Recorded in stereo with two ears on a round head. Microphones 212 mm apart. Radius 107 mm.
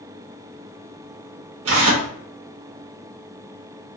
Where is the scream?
No scream in this recording.